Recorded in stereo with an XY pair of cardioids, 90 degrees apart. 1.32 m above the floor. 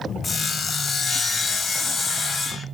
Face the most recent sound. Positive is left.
turn(degrees=50)